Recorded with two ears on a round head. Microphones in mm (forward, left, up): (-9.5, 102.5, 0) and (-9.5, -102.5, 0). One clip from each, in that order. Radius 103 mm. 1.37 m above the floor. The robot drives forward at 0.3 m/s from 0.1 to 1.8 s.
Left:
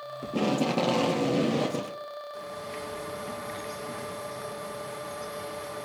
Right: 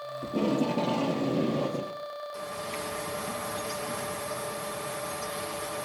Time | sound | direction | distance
0.2 | tape being pulled | 45° left (ahead or behind) | 1.1 m
2.3 | a bird | 20° right (ahead or behind) | 2 m